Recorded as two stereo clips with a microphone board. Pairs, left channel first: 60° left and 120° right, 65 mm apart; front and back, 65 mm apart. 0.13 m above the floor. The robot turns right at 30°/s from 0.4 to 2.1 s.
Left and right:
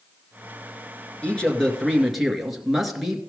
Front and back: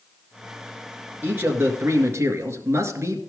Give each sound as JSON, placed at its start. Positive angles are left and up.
{"t": 1.2, "sound": "a man speaking", "azimuth_deg": 125, "distance_m": 1.8}